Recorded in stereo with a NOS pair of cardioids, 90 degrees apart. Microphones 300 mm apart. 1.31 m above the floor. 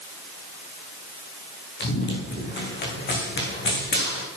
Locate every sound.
1.8 s running footsteps: 35° left, 5 m